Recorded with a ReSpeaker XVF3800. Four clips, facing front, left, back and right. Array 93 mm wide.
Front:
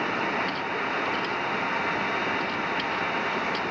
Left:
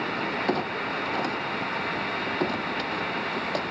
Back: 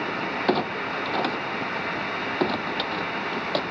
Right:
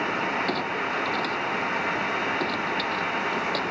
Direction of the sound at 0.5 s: 165° left.